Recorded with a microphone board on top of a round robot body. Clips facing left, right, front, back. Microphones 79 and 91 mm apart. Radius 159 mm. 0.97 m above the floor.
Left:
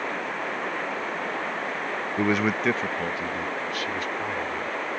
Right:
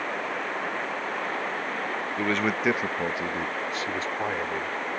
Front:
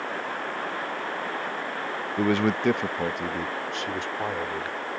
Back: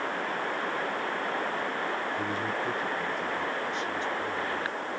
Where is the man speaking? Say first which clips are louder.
Left 3 dB, front 7 dB; 20° left; by 5.0 s 30° right.